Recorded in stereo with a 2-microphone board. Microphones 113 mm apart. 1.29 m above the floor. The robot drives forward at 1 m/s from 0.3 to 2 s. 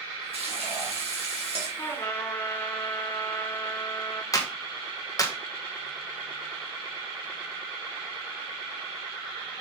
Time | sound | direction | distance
0.3 | frying | 70° right (ahead or behind) | 2.5 m
1.8 | a trumpet | 25° left (ahead or behind) | 1.4 m
4.3 | a clap | 35° left (ahead or behind) | 1.2 m